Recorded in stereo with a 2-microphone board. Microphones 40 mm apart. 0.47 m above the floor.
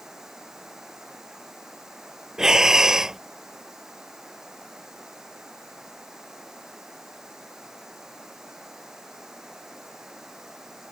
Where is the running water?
15° right (ahead or behind).